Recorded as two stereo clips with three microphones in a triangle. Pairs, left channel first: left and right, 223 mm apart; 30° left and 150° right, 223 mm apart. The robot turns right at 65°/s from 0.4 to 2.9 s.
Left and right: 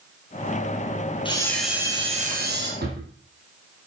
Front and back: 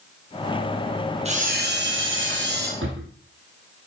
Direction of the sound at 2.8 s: 130° right.